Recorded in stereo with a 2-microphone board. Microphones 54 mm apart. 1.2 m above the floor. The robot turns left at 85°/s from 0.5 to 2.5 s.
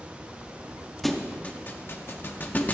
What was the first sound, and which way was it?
A thud, centre (ahead or behind).